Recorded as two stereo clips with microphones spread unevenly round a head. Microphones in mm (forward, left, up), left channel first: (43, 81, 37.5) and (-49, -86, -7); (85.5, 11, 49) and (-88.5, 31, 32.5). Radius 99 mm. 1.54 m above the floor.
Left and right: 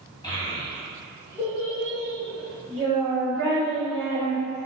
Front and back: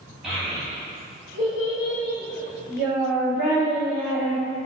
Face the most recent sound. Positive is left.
turn(degrees=-25)